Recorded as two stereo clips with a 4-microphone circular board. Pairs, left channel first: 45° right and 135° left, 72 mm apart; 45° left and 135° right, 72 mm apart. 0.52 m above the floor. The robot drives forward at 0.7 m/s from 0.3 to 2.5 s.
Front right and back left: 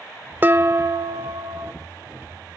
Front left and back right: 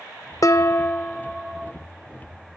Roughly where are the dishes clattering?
Left.